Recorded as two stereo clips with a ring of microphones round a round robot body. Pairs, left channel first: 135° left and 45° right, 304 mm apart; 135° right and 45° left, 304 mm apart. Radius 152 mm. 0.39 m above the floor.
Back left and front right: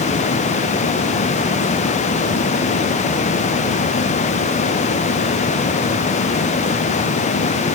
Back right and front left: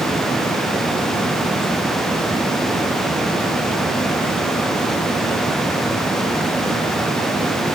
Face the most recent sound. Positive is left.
No sound to turn to.